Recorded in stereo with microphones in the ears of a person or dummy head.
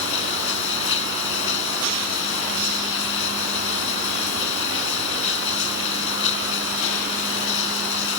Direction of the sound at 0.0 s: 70° left (ahead or behind).